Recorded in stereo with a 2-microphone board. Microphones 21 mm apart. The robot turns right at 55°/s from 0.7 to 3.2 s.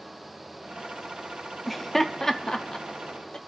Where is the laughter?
Centre (ahead or behind), 0.8 m; by 3.4 s 50° left (ahead or behind), 0.8 m.